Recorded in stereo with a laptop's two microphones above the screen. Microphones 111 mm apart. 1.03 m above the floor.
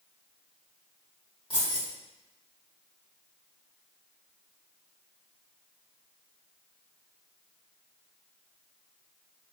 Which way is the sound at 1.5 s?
50° left (ahead or behind).